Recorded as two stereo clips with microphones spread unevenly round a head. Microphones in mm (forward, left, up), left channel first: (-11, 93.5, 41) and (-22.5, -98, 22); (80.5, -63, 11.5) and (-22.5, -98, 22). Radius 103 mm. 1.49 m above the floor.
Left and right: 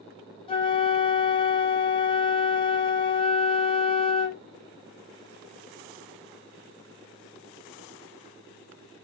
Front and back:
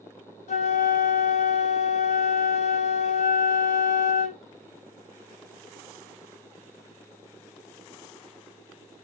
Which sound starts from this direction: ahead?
A flute, at 0.5 s.